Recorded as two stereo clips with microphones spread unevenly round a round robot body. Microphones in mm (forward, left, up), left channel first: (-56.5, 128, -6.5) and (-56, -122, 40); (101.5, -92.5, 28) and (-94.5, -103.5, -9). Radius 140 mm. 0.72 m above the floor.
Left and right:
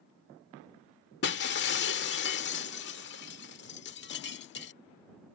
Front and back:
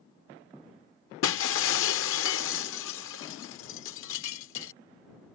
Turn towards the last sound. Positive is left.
turn(degrees=35)